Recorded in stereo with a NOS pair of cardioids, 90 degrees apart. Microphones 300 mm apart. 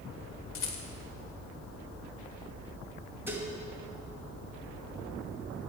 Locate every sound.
0.6 s a rattle: 45° left, 1.7 m
3.3 s dishes clattering: 5° right, 1.6 m